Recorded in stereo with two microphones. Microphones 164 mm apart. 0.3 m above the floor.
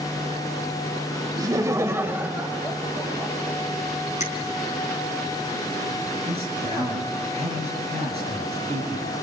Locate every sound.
1.4 s laughter: 20° right (ahead or behind), 0.9 m; by 3.6 s centre (ahead or behind), 2 m
4.2 s a finger snap: 45° left (ahead or behind), 3 m
6.3 s a man speaking: 40° right (ahead or behind), 6.5 m